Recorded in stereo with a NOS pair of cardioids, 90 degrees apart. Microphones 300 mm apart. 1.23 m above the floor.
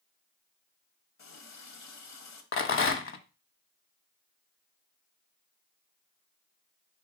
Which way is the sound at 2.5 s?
45° left.